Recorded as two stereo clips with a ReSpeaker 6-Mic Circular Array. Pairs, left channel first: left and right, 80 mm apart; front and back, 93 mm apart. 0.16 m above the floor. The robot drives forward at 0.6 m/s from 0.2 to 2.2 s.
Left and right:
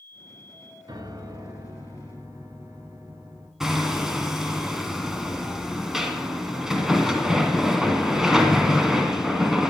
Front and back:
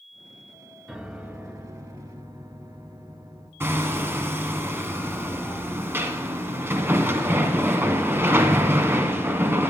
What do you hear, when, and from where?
0.9 s a piano: 95° right, 1.1 m; by 3.5 s 135° right, 1.4 m
3.6 s hammering: 170° right, 1.3 m